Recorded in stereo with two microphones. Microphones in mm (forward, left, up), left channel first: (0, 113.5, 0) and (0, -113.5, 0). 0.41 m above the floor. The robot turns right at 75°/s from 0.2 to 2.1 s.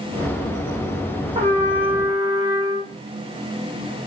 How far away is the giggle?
I don't hear a giggle.